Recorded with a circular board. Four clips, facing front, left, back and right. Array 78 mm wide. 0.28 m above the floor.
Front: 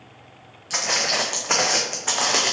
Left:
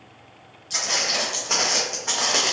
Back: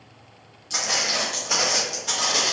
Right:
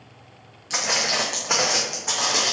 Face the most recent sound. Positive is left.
turn(degrees=25)